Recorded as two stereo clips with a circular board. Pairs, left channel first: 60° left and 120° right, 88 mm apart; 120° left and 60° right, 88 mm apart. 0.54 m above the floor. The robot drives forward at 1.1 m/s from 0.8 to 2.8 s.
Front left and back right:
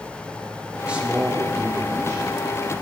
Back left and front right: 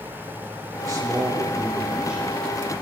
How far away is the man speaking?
About 1.6 m.